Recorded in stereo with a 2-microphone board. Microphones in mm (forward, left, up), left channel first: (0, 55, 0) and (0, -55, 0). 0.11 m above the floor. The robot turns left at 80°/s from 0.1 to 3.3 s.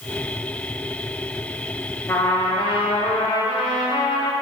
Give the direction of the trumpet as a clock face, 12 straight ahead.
7 o'clock.